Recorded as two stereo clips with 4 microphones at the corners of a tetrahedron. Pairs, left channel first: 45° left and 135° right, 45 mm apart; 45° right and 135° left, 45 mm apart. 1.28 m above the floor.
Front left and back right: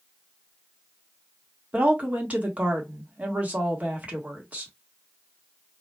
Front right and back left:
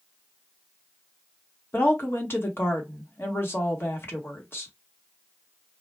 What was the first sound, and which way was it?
A woman speaking, 75° right.